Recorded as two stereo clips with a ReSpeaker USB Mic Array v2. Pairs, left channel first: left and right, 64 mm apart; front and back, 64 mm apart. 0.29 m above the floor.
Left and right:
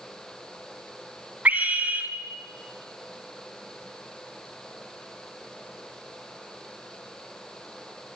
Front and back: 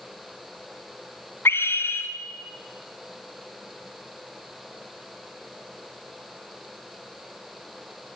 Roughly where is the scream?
Ahead right.